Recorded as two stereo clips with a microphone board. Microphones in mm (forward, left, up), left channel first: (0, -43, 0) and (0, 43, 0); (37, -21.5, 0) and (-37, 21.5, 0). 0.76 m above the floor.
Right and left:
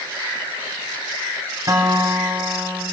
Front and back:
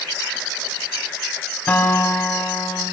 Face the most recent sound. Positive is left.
turn(degrees=40)